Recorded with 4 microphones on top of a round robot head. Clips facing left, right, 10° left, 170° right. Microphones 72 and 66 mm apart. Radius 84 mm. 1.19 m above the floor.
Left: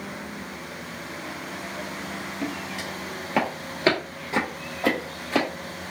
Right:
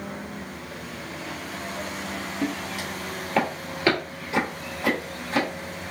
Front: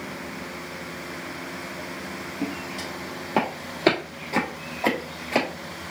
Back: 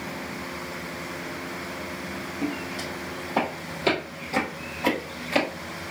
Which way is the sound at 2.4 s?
15° right.